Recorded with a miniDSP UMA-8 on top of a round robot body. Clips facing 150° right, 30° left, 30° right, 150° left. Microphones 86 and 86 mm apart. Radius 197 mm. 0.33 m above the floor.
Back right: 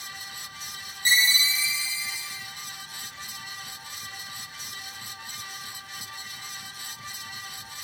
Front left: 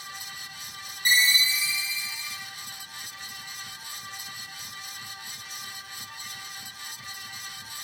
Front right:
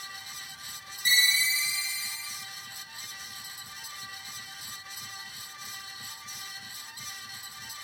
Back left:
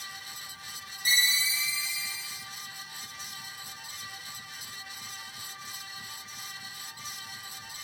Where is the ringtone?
160° left, 1.5 m.